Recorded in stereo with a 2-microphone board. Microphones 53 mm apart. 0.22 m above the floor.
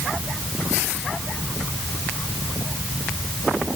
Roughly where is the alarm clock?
No alarm clock in this recording.